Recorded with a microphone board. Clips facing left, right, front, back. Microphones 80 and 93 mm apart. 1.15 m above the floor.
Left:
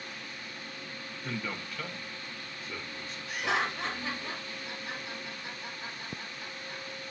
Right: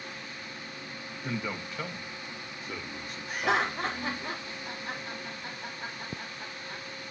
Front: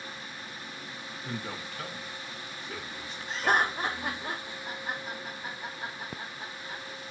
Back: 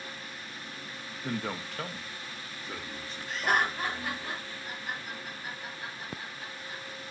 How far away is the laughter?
About 1.2 m.